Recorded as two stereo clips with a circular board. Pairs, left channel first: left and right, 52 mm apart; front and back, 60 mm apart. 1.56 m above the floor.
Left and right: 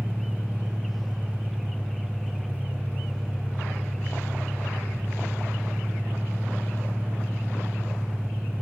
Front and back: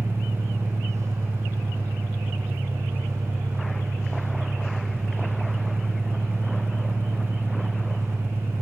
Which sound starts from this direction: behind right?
An engine running, at 0.0 s.